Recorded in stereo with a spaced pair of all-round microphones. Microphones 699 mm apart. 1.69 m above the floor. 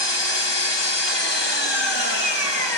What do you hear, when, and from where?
0.0 s an engine running: 35° left (ahead or behind), 2.5 m